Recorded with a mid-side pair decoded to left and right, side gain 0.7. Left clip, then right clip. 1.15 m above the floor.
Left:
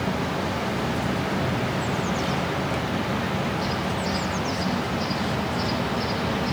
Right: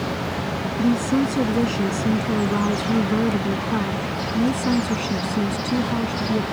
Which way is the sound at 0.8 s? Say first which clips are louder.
Right 5 dB; 60° right.